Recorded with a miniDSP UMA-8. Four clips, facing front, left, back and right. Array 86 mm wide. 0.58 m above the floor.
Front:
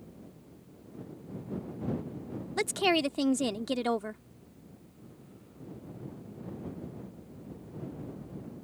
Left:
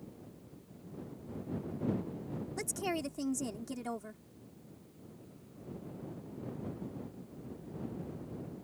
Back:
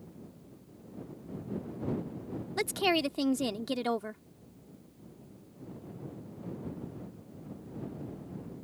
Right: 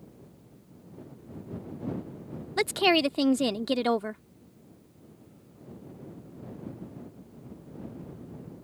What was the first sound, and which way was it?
A woman speaking, 80° right.